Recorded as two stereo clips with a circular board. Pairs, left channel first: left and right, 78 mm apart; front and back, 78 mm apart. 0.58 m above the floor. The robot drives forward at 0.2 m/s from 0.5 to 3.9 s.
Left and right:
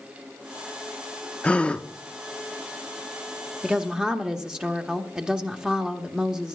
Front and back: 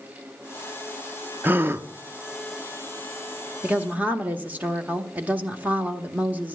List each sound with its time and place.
1.4 s a gasp: 150° left, 0.6 m; by 1.9 s 155° left, 0.7 m
3.6 s a woman speaking: 150° right, 0.9 m; by 6.6 s 155° right, 0.9 m